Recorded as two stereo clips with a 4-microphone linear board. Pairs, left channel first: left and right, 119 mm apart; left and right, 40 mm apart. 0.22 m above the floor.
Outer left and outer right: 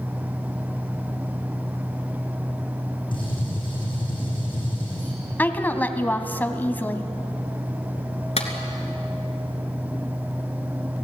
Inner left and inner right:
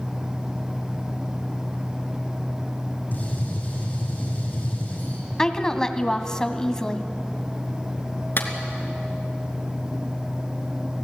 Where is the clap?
60° left (ahead or behind), 2.5 m.